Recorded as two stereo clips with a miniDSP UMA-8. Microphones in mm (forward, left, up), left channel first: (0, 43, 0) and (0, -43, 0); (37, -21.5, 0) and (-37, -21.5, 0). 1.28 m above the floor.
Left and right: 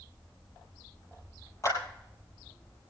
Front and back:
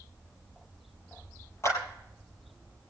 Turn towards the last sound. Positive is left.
turn(degrees=40)